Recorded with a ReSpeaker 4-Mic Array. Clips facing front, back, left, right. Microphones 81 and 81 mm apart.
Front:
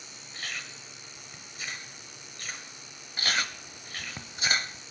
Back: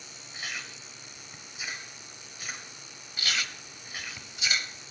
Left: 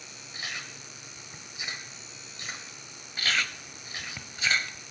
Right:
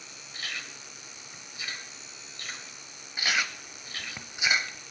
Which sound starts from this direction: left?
Chewing, at 0.3 s.